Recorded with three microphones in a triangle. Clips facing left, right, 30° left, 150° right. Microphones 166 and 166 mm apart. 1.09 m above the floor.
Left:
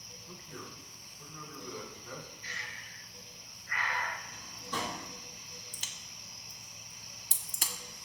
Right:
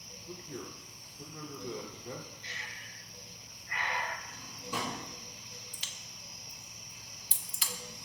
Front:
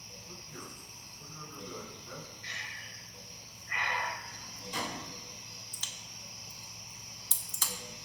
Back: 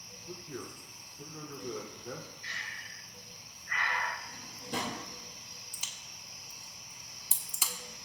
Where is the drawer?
170° right, 4.5 m.